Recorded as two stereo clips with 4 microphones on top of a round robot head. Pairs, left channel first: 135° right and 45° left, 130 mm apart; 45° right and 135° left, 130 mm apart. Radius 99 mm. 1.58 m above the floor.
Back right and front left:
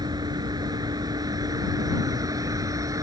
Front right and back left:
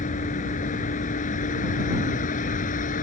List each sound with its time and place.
0.0 s a vehicle: 15° right; by 3.0 s 20° right